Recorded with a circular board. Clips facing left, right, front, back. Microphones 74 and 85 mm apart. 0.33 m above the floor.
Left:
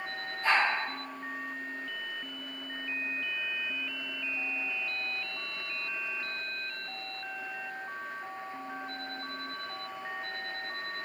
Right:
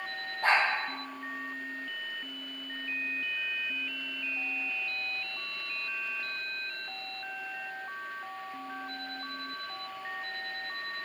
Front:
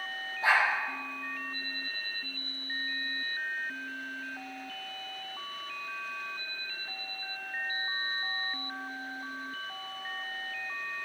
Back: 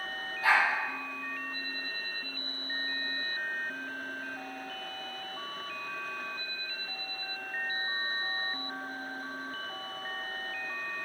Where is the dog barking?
65° right, 4.5 m.